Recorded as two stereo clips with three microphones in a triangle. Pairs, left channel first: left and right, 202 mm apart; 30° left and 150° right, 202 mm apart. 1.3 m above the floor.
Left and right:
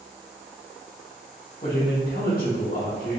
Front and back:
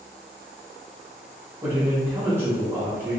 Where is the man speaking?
135° left, 1.6 m.